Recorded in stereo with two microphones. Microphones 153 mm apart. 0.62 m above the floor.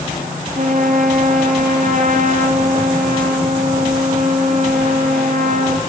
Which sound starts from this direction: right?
A trumpet, at 0.6 s.